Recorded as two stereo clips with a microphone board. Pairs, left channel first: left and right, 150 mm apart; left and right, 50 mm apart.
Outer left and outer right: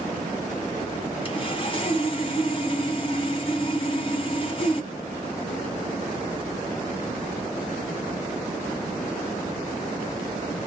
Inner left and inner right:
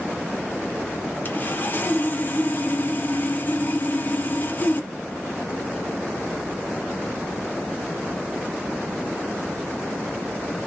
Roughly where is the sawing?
Left.